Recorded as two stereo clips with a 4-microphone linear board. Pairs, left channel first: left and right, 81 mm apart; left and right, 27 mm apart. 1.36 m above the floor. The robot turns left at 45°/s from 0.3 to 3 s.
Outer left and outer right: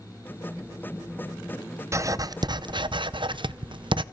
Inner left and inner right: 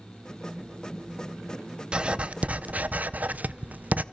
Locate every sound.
1.9 s writing: 35° right, 0.6 m; by 4.0 s 85° right, 0.6 m